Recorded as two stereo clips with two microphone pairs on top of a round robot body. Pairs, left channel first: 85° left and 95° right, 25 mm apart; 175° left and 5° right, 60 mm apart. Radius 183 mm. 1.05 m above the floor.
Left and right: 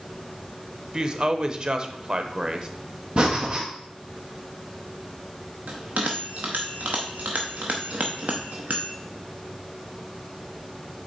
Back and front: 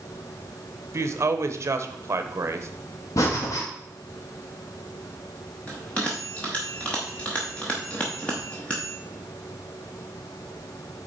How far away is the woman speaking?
About 0.9 m.